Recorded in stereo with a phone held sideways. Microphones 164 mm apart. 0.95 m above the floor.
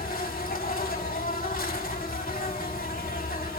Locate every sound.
0.0 s an insect: 60° left (ahead or behind), 4 m